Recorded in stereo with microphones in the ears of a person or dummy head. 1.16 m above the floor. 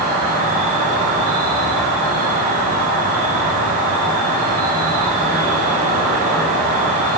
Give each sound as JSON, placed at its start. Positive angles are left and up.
{"t": 0.0, "sound": "an insect", "side_deg": -50, "distance_m": 1.9}